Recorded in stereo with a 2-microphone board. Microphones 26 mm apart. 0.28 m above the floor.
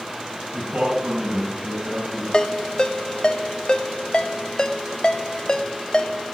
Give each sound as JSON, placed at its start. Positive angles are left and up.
{"t": 0.5, "sound": "a man speaking", "side_deg": -65, "distance_m": 3.0}
{"t": 2.3, "sound": "a ringtone", "side_deg": 30, "distance_m": 0.7}